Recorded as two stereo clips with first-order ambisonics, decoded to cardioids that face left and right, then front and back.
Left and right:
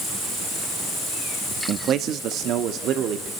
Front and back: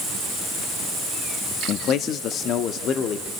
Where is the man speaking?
45° right, 0.7 m; by 3.3 s 50° right, 1.5 m.